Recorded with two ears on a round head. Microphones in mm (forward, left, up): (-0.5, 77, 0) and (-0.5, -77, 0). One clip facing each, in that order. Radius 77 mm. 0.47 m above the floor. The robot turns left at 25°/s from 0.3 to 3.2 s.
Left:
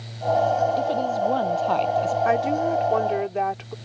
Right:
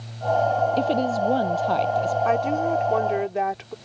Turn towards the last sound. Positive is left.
turn(degrees=-5)  # may be behind; listen again after turning